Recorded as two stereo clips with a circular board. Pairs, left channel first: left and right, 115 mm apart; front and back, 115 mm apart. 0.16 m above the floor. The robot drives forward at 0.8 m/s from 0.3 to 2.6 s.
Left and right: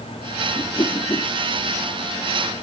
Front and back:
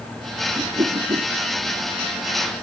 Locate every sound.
0.6 s a whoosh: 140° left; by 1.3 s 145° left